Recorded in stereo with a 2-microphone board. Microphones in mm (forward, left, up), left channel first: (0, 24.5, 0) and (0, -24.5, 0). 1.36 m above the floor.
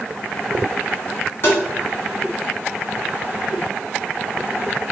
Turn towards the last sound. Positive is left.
turn(degrees=55)  # may be behind; listen again after turning